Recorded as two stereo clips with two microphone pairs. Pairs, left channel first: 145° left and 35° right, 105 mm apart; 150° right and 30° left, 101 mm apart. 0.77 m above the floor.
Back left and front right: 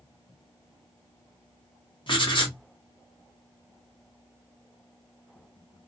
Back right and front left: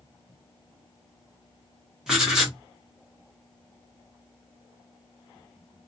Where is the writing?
110° left, 1.4 m.